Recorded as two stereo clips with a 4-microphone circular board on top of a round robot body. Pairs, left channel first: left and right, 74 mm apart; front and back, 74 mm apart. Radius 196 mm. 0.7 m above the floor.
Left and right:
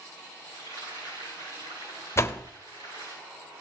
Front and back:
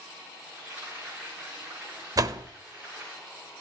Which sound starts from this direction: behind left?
A door slam, at 2.2 s.